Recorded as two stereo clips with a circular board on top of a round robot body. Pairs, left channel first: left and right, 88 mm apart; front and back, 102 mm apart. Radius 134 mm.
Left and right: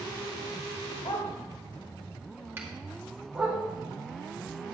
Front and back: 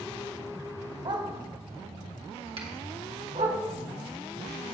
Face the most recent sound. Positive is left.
turn(degrees=-155)